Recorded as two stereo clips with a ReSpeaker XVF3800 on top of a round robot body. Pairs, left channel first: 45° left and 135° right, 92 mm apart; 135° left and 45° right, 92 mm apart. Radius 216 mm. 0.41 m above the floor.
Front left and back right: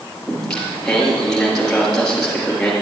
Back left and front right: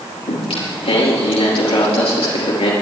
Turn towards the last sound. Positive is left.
turn(degrees=130)